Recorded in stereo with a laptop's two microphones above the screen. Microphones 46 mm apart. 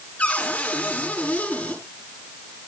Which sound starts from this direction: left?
A cupboard door, at 0.2 s.